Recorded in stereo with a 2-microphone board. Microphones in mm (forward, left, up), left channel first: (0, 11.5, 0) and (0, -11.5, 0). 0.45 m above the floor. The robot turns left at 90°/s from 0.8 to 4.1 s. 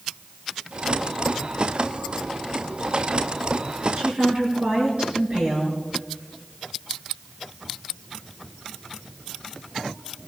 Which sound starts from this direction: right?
A woman speaking, at 4.0 s.